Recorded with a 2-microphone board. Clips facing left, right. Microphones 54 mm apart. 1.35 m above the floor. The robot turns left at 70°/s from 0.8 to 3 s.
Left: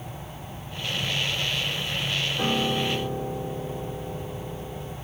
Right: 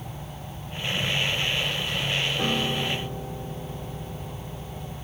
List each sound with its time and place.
2.4 s a piano: 175° left, 1.1 m; by 5.0 s 130° left, 1.1 m